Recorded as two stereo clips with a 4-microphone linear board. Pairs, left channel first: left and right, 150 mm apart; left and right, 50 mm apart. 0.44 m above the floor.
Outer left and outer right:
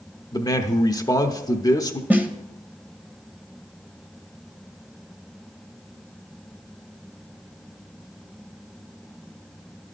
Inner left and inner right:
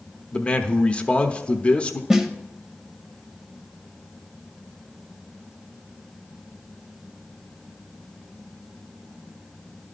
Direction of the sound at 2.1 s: 10° right (ahead or behind).